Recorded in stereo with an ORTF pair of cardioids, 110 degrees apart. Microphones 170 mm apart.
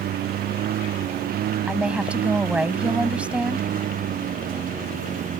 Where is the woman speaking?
5° right.